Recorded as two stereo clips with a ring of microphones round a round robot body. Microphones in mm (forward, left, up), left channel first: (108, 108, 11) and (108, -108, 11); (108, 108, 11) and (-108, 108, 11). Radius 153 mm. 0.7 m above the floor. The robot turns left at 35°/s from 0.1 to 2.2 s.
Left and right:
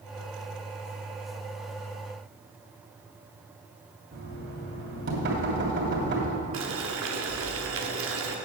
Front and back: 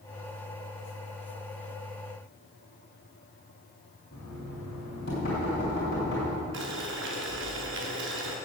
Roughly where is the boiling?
Behind right.